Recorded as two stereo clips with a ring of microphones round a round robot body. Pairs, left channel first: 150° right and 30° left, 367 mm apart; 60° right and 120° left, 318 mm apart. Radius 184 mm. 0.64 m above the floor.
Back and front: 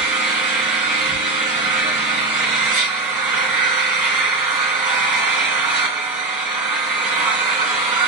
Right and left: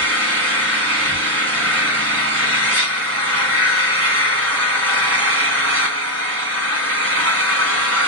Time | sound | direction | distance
0.0 | an engine running | 70° left | 4 m